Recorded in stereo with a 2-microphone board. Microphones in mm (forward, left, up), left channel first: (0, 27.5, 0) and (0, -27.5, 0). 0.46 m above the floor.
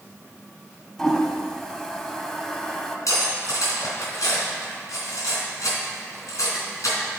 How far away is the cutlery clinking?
About 3 m.